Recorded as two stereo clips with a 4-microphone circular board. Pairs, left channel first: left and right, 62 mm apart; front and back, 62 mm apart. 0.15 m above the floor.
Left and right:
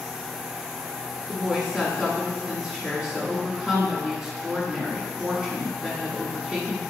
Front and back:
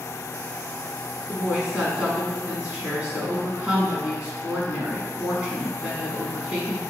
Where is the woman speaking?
150° right, 1.4 m.